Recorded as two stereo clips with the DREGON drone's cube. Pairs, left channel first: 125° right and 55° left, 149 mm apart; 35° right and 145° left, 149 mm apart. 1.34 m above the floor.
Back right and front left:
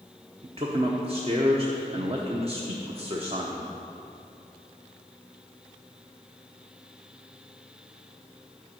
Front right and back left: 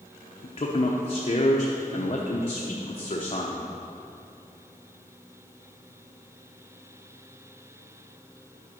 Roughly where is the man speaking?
Ahead.